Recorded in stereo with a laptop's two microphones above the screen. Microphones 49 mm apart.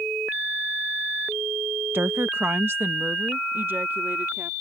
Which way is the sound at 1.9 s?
50° right (ahead or behind).